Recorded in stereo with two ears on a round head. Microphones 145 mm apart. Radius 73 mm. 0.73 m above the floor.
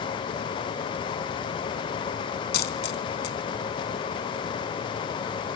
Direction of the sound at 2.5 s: 75° left (ahead or behind).